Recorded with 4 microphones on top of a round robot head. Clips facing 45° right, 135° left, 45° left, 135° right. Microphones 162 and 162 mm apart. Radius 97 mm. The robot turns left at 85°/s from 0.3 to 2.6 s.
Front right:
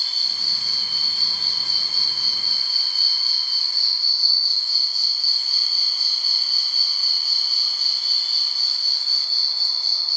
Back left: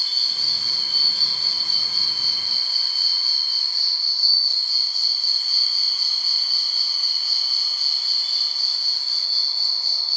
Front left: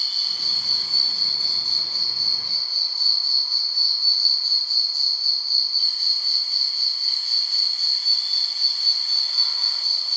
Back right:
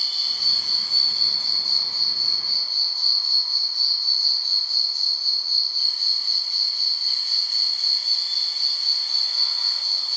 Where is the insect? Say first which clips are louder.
Even, even; 160° left, 2.5 m; by 10.2 s 40° right, 2.5 m.